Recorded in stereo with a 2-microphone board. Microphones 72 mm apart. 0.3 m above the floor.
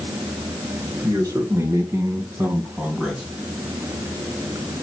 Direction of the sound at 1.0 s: 45° right (ahead or behind).